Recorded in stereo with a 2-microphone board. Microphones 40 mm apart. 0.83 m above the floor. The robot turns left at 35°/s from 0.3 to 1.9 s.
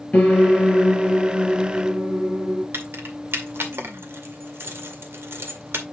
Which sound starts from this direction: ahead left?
A piano, at 0.1 s.